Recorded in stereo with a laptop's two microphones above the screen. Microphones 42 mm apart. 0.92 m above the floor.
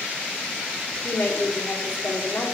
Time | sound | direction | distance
1.0 | a woman speaking | 75° left (ahead or behind) | 2 m